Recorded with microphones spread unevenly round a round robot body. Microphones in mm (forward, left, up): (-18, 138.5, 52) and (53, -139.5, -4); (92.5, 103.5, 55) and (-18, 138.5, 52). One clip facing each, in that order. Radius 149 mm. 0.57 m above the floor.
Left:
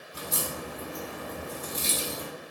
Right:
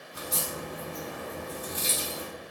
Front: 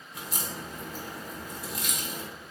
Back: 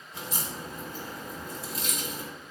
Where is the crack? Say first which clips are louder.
Left 1 dB, back 1 dB; 100° left, 1.1 m.